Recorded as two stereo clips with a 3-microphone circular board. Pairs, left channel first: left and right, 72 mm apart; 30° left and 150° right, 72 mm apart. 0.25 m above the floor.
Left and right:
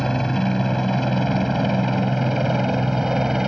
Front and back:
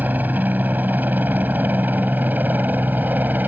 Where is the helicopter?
170° left; by 3.5 s 165° right.